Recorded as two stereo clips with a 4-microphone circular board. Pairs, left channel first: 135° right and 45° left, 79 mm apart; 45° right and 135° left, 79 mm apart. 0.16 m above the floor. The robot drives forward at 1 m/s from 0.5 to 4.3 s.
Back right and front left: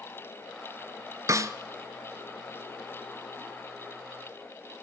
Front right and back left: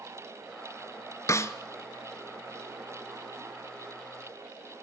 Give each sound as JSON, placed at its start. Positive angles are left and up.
{"t": 1.3, "sound": "a snare drum", "azimuth_deg": 0, "distance_m": 0.8}